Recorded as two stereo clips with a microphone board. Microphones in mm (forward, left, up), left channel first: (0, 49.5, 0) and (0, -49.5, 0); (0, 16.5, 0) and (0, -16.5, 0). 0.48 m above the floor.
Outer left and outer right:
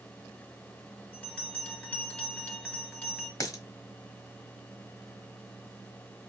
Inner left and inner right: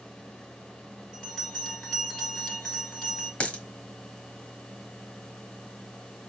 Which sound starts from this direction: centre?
A bell, at 1.1 s.